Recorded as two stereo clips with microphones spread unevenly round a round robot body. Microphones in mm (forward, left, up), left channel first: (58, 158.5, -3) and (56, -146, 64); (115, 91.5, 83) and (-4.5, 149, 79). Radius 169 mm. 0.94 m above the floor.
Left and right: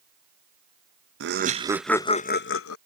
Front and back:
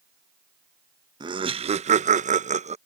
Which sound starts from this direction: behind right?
Laughter, at 1.2 s.